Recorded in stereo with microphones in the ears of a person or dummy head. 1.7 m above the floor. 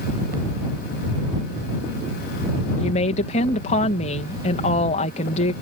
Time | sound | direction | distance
2.8 | a woman speaking | 40° left (ahead or behind) | ?